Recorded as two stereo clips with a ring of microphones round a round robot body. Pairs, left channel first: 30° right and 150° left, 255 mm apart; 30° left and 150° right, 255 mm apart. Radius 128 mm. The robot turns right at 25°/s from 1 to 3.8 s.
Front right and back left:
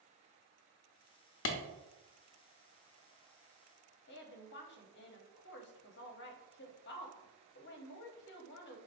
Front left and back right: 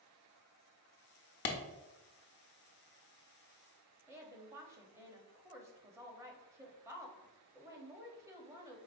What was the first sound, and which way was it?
A clap, 5° right.